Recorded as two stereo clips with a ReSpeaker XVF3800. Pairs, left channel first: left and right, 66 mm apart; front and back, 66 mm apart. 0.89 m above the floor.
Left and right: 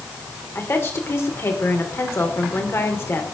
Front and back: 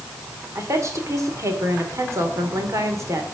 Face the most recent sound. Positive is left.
turn(degrees=140)